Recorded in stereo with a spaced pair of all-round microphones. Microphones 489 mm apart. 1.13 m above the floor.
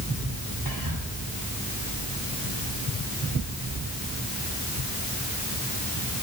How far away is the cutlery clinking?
No cutlery clinking in this recording.